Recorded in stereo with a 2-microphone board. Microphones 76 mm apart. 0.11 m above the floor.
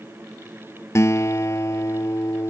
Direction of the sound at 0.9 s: 40° left (ahead or behind).